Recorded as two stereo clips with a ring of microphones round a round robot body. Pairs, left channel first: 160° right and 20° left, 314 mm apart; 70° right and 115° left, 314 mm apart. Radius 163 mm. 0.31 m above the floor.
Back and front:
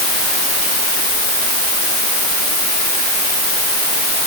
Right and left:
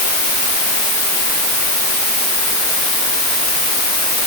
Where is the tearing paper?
No tearing paper in this recording.